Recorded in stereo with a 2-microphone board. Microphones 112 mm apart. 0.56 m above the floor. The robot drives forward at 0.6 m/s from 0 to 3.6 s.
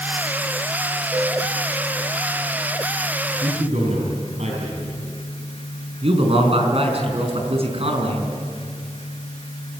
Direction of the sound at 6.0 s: 60° right (ahead or behind).